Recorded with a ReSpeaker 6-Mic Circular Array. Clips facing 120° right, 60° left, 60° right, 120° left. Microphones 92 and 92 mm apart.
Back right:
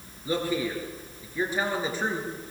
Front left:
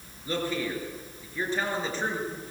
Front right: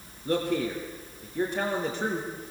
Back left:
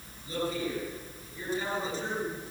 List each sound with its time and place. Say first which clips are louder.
0.2 s a man speaking: back right 2 dB, front right 5 dB; 45° right, 6.5 m